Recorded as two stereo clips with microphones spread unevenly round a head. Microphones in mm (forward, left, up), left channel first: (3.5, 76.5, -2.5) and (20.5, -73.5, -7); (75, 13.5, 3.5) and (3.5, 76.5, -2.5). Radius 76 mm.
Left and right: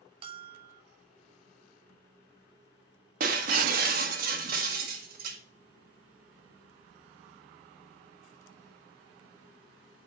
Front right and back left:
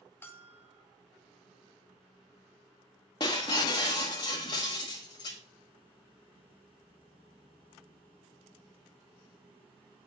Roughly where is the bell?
Right.